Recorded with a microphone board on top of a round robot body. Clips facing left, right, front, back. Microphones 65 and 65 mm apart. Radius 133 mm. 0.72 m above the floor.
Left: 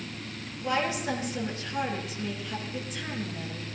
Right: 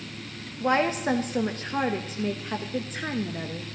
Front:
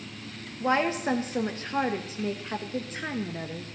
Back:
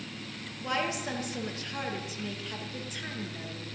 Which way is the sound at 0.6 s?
50° right.